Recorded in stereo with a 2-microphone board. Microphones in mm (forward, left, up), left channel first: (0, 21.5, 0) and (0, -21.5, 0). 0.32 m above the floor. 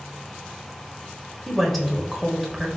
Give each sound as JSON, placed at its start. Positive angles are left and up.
{"t": 1.5, "sound": "a woman speaking", "side_deg": 0, "distance_m": 0.9}